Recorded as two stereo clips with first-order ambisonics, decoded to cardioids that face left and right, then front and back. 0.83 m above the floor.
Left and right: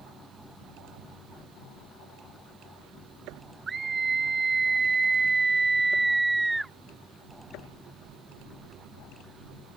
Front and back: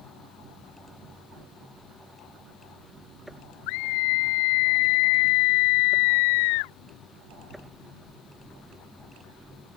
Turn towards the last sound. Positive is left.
turn(degrees=-5)